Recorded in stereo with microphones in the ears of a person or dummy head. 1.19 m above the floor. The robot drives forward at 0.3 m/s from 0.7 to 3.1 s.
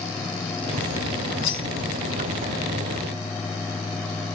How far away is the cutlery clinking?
About 1.0 m.